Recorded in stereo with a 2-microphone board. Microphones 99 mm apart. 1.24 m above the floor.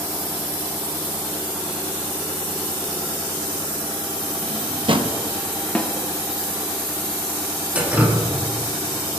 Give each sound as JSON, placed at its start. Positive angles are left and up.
{"t": 4.4, "sound": "a drawer", "side_deg": -55, "distance_m": 0.8}
{"t": 5.8, "sound": "a snare drum", "side_deg": 15, "distance_m": 0.9}
{"t": 7.8, "sound": "dripping", "side_deg": -15, "distance_m": 2.0}